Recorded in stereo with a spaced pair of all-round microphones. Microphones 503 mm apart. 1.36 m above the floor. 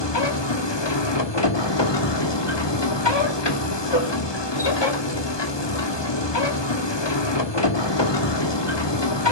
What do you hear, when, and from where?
0.0 s a machine running: 55° left (ahead or behind), 2 m